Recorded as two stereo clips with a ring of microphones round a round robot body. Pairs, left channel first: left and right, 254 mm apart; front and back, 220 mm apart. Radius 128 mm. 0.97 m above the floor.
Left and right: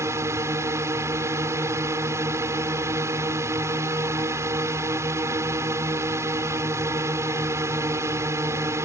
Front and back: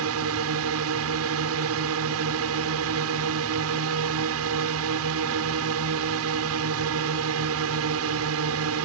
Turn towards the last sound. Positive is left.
turn(degrees=-170)